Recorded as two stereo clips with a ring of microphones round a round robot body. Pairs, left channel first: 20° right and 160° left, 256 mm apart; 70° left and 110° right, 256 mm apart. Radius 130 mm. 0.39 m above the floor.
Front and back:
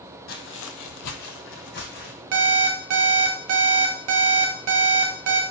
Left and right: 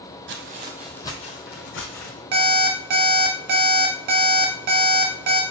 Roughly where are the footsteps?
Right.